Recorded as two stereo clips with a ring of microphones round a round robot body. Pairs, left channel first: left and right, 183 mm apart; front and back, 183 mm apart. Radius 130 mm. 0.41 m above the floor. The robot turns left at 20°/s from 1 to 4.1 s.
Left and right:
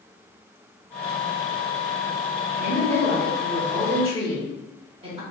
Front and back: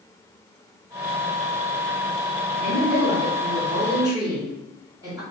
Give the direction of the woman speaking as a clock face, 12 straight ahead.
3 o'clock.